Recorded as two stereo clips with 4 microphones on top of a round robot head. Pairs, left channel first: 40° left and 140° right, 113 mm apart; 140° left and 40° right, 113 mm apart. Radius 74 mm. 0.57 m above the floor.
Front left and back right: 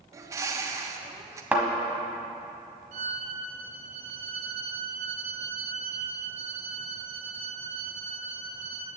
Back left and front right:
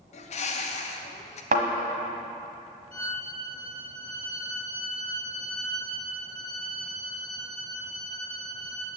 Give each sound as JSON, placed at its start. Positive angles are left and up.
{"t": 0.1, "sound": "a bird", "azimuth_deg": 160, "distance_m": 0.8}
{"t": 1.5, "sound": "a thud", "azimuth_deg": -60, "distance_m": 1.2}
{"t": 2.9, "sound": "a violin", "azimuth_deg": -140, "distance_m": 3.0}